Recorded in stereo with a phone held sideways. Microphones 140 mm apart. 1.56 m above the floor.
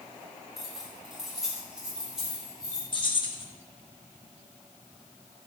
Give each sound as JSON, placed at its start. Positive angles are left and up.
{"t": 0.6, "sound": "keys jangling", "side_deg": 0, "distance_m": 3.5}
{"t": 2.9, "sound": "keys jangling", "side_deg": 35, "distance_m": 2.0}